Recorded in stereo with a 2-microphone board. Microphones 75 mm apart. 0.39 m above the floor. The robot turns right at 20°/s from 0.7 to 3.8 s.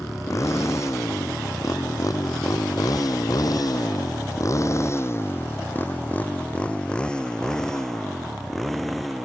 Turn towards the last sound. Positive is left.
turn(degrees=0)  # may be behind; listen again after turning